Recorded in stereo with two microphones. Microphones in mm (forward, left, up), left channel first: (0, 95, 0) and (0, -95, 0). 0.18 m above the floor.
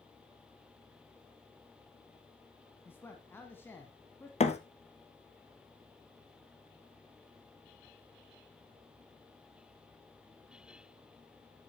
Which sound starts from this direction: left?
A thud, at 4.4 s.